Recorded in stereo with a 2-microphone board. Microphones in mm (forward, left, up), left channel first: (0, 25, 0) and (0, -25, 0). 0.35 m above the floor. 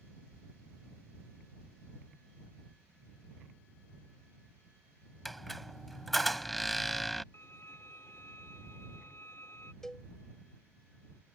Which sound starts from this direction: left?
A violin, at 7.3 s.